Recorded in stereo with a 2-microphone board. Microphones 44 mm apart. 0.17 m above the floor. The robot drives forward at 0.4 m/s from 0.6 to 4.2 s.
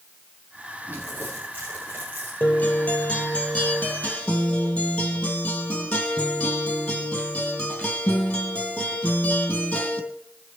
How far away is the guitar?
About 2 m.